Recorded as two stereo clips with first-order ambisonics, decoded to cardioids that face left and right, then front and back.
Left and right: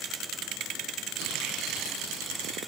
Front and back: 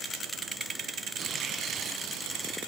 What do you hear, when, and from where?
1.2 s tearing paper: 125° right, 4 m